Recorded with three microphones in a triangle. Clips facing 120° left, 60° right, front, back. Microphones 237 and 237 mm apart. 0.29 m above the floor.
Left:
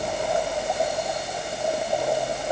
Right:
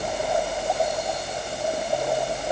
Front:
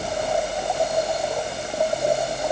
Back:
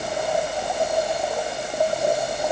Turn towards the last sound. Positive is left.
No sound to turn to.